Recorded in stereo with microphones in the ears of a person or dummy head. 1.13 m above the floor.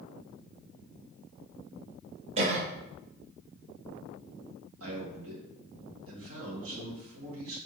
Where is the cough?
40° right (ahead or behind), 0.7 m.